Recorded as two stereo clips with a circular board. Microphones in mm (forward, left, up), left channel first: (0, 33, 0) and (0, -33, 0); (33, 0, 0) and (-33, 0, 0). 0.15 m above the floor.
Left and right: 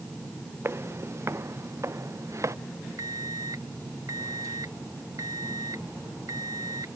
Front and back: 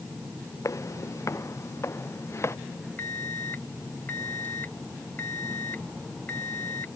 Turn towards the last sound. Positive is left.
turn(degrees=-60)